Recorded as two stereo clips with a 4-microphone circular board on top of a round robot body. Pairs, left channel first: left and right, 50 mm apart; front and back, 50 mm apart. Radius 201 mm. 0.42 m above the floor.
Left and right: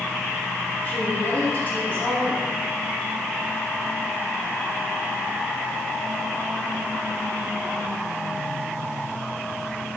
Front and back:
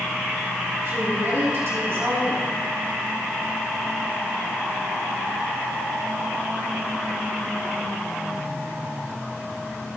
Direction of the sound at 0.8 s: 145° left.